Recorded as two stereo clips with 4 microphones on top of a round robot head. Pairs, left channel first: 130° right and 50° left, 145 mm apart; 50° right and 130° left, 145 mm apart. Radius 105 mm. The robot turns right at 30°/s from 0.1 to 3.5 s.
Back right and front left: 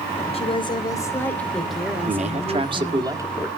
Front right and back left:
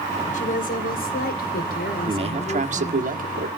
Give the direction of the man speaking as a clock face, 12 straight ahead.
9 o'clock.